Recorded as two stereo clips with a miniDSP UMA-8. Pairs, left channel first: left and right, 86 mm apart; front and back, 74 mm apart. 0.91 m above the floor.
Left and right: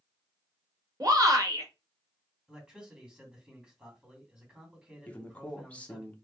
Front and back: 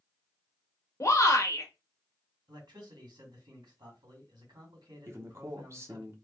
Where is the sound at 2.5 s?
170° right, 2.5 m.